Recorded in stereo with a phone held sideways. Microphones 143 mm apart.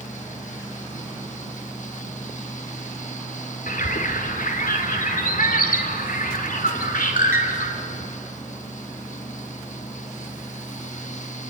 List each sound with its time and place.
0.0 s a fan: 60° left (ahead or behind), 1.3 m
3.7 s a bird: 75° left (ahead or behind), 2.5 m